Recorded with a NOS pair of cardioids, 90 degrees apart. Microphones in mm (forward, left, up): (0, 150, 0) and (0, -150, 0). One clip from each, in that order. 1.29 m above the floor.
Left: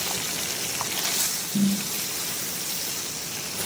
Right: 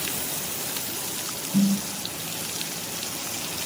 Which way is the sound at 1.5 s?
70° right.